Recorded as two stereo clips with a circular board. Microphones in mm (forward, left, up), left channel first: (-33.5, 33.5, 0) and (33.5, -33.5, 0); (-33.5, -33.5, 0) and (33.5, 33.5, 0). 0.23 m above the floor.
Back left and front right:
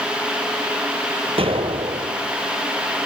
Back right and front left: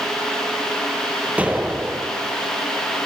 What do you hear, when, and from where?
1.4 s an explosion: 30° right, 1.4 m